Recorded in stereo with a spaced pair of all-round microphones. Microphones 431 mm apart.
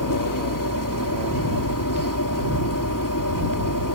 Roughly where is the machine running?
Left.